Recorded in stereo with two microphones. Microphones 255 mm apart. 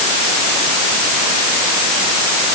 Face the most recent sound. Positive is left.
No sound to turn to.